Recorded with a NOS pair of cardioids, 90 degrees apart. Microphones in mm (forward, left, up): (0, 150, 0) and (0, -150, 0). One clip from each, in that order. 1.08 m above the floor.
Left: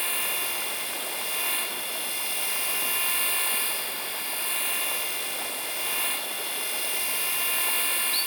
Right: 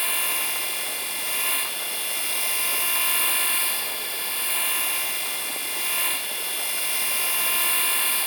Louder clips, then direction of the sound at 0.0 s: Right 3 dB; 25° right.